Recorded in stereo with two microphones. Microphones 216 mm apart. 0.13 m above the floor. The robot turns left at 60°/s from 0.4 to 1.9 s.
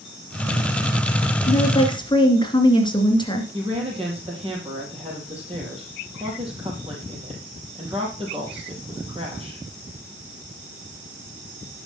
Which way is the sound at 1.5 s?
35° left (ahead or behind).